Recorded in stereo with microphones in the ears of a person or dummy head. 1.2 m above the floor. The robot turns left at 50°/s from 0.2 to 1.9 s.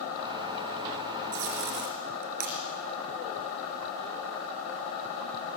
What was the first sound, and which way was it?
Tape being pulled, 75° right (ahead or behind).